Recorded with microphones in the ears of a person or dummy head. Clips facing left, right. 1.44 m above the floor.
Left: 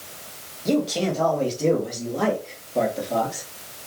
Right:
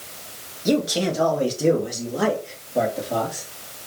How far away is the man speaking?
About 1.9 m.